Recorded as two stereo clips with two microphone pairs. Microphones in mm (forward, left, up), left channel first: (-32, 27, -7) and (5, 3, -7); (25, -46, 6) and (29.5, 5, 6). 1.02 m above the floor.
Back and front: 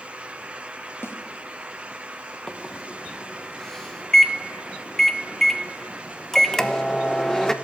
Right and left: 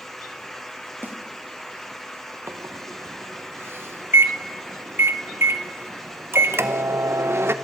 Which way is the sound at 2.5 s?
65° left.